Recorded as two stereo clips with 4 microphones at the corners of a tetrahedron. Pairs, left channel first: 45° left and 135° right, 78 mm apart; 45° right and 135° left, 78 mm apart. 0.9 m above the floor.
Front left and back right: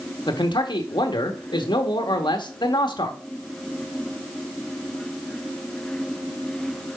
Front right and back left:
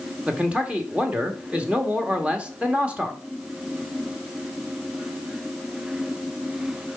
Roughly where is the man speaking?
Ahead left.